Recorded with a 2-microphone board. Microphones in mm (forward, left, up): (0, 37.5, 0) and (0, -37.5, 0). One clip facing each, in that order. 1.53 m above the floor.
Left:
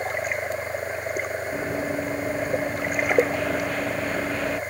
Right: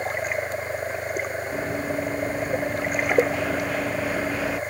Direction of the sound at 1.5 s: 5° left (ahead or behind).